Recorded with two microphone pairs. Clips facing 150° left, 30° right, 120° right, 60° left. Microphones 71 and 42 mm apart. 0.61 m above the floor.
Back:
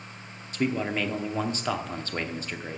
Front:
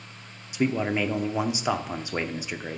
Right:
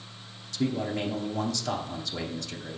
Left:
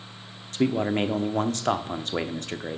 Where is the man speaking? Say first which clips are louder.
Front 2 dB, left 5 dB; 40° left, 0.8 m.